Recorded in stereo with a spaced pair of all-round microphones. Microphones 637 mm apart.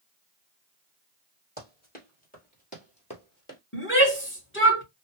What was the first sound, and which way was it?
Running footsteps, 15° left (ahead or behind).